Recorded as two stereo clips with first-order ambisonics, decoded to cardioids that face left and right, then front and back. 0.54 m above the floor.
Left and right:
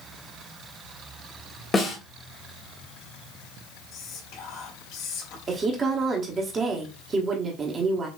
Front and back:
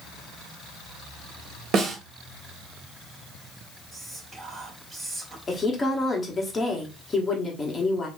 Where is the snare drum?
150° left, 1.3 m.